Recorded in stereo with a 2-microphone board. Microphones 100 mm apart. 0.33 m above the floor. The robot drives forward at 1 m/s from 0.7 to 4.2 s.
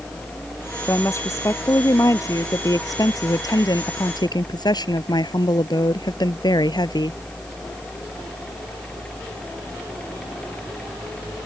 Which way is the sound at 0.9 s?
30° left (ahead or behind).